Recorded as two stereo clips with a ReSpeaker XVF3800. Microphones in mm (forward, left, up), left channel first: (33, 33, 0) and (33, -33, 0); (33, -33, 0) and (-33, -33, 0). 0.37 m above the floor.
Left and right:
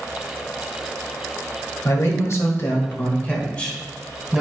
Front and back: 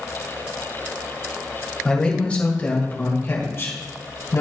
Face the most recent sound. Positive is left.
turn(degrees=0)